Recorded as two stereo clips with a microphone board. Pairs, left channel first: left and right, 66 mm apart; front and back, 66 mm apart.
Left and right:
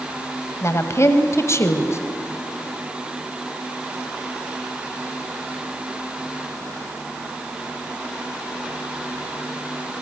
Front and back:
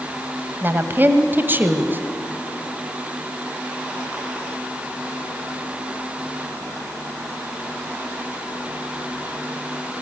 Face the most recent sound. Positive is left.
turn(degrees=125)